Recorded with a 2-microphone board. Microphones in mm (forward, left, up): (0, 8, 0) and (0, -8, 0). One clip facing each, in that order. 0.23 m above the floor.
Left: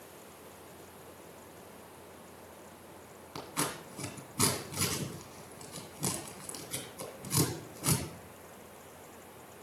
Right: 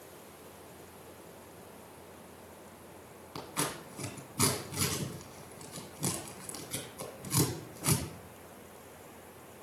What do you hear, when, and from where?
3.4 s scissors: 5° right (ahead or behind), 2 m